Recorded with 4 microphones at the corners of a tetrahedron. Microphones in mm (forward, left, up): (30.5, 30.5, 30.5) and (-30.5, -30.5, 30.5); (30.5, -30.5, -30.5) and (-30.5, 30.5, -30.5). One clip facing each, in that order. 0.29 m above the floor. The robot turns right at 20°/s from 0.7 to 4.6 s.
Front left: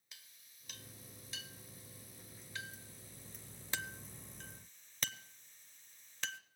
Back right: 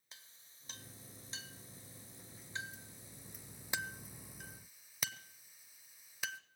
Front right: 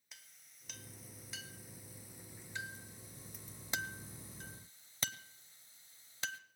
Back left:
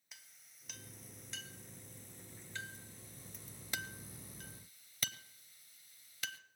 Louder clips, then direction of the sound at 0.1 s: Back right 2 dB, even; 140° right.